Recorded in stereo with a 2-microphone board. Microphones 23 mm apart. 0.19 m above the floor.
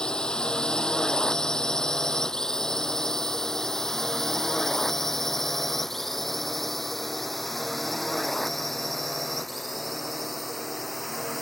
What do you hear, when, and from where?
0.0 s a drone: 35° left (ahead or behind); by 11.4 s 5° right (ahead or behind)